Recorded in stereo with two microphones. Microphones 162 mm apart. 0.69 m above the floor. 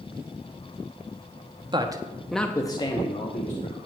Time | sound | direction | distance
1.7 | a man speaking | 30° right (ahead or behind) | 1.1 m